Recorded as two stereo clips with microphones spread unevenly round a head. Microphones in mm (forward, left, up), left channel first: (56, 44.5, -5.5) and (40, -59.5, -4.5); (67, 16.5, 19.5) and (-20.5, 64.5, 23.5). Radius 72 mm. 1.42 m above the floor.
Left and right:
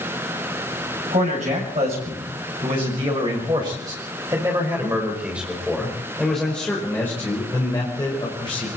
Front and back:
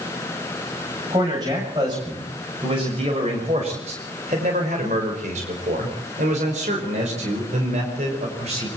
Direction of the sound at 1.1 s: 145° right.